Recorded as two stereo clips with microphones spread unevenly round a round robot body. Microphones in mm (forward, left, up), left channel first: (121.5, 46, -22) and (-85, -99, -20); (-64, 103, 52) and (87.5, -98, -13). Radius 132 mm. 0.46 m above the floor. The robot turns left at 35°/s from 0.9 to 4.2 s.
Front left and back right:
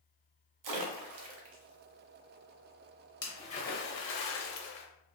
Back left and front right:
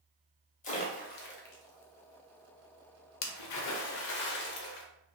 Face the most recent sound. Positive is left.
turn(degrees=75)